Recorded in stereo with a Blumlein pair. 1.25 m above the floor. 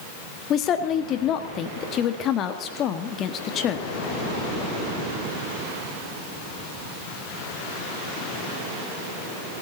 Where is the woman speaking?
30° left, 1.7 m.